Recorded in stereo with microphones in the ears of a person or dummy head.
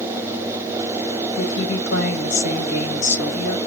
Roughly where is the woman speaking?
Left.